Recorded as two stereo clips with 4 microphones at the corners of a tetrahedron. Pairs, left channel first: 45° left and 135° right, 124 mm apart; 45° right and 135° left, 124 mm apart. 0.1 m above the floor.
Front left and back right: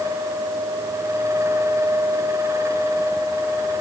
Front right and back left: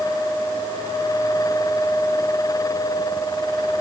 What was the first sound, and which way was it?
Only background noise.